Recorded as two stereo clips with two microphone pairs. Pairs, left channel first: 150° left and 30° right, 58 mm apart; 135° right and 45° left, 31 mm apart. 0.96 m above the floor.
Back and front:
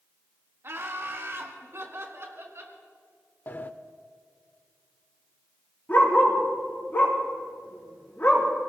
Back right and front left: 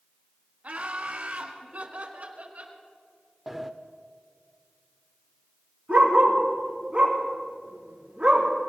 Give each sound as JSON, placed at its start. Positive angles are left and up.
{"t": 0.6, "sound": "laughter", "azimuth_deg": 10, "distance_m": 2.0}
{"t": 3.5, "sound": "a sliding door", "azimuth_deg": 130, "distance_m": 0.7}
{"t": 5.9, "sound": "a dog barking", "azimuth_deg": 95, "distance_m": 4.5}